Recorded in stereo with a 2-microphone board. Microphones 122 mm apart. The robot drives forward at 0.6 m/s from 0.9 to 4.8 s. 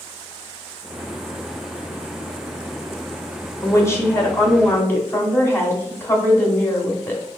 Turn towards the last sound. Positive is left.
turn(degrees=20)  # may be behind; listen again after turning